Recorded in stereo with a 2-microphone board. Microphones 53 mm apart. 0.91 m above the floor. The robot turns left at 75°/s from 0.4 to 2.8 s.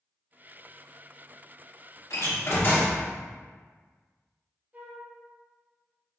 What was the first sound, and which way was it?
A door slam, 80° left.